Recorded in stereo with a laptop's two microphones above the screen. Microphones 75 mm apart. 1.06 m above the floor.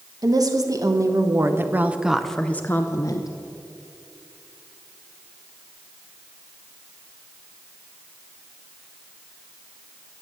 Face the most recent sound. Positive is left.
turn(degrees=45)  # may be behind; listen again after turning